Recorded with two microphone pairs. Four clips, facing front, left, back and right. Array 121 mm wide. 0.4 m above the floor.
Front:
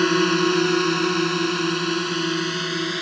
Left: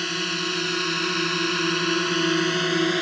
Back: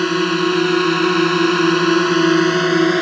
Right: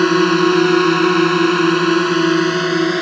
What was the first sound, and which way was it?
A drone, 95° right.